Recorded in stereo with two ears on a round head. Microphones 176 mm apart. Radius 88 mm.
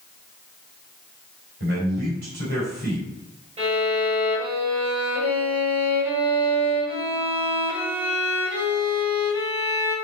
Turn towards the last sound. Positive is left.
turn(degrees=-35)  # may be behind; listen again after turning